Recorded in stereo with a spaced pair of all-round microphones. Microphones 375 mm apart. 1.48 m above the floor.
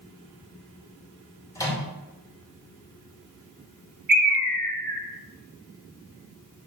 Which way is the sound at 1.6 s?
10° left (ahead or behind).